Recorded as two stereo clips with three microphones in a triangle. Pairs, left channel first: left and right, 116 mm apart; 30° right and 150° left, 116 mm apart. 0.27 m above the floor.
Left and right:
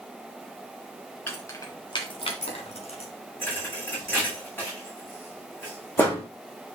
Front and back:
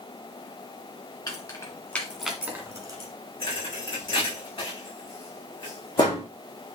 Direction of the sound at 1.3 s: 20° left.